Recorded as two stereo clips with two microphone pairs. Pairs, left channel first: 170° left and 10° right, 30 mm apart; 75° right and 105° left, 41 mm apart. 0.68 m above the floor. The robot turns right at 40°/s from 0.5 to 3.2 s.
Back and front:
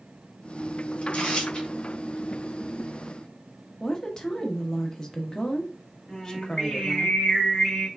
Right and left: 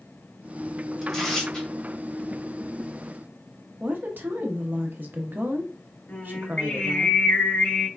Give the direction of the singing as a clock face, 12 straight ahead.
4 o'clock.